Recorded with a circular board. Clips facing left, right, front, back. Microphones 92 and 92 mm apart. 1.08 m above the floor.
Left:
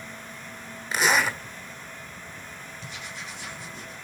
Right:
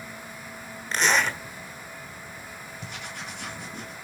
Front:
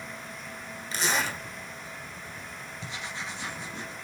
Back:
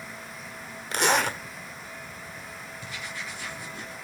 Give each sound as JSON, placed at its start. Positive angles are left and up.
{"t": 0.9, "sound": "a zipper", "azimuth_deg": 170, "distance_m": 1.2}
{"t": 2.8, "sound": "writing", "azimuth_deg": -65, "distance_m": 2.0}